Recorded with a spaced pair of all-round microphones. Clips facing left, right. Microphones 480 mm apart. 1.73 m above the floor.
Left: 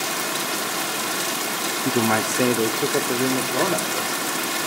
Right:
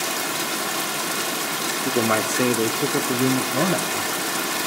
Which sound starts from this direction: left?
A man speaking, at 1.9 s.